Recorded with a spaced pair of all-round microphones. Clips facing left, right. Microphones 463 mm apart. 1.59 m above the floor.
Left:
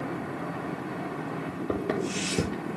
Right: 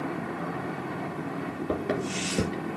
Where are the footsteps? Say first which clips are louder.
Left 1 dB; 5° right (ahead or behind), 2.5 m; by 2.8 s 10° left (ahead or behind), 2 m.